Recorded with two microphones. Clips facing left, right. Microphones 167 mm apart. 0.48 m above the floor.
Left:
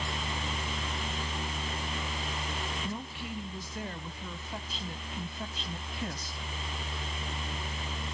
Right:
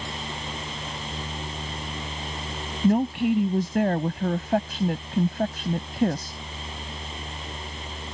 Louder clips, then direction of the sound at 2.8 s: Right 17 dB; 65° right (ahead or behind).